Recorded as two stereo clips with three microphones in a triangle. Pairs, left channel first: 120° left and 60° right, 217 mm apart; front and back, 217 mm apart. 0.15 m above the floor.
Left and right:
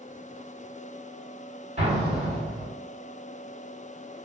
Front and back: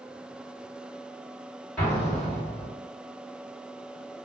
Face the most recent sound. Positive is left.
turn(degrees=-80)